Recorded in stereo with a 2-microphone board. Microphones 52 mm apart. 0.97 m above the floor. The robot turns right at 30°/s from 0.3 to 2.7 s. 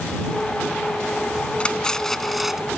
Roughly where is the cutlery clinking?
Behind.